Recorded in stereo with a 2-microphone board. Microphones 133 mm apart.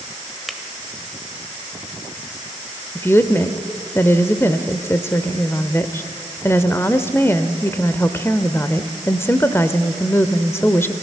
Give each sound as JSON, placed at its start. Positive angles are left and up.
{"t": 0.5, "sound": "a finger snap", "side_deg": 0, "distance_m": 1.4}
{"t": 3.0, "sound": "a woman speaking", "side_deg": 20, "distance_m": 0.8}